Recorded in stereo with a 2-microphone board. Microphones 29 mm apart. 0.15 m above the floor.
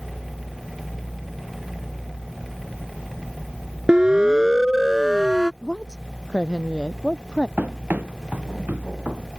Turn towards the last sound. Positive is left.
turn(degrees=-90)